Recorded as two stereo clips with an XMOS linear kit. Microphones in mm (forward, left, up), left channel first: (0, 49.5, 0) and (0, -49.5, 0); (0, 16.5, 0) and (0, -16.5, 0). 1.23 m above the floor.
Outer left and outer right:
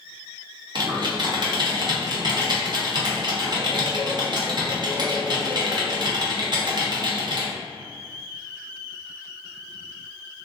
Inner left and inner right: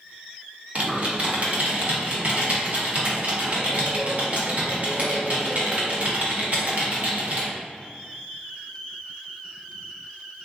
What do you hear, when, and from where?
0.8 s typing on a keyboard: 45° right (ahead or behind), 0.7 m